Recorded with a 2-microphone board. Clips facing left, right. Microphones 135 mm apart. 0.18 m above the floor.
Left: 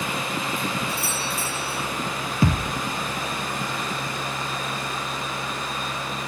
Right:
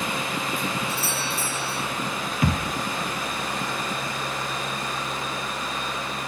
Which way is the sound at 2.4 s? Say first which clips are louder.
Left 2 dB; 30° left (ahead or behind).